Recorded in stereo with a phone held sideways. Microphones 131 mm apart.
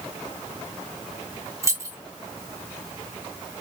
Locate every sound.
1.6 s keys jangling: 20° right (ahead or behind), 0.8 m